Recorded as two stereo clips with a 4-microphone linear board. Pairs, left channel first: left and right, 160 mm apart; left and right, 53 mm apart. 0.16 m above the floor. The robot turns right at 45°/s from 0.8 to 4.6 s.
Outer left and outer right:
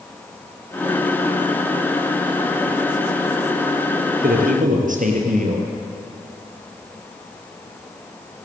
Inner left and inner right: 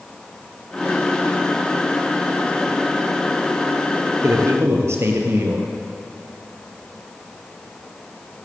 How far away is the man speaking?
About 4.5 m.